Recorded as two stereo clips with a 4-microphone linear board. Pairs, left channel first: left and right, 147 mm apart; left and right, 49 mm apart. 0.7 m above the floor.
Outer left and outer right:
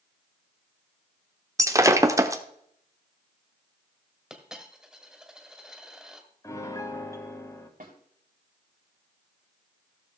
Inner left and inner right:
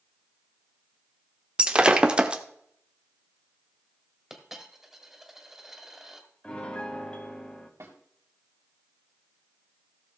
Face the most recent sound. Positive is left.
turn(degrees=-75)  # may be behind; listen again after turning